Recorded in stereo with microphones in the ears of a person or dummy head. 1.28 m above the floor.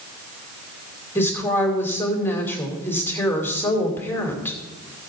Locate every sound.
1.1 s a woman speaking: 15° left (ahead or behind), 2.5 m